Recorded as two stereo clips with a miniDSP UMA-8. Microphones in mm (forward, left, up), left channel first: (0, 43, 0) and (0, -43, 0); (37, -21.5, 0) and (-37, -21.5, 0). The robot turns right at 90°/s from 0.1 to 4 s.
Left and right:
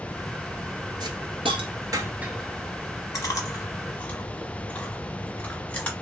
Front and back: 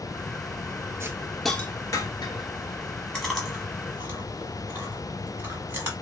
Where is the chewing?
70° left, 1.2 m; by 5.9 s 145° left, 1.2 m.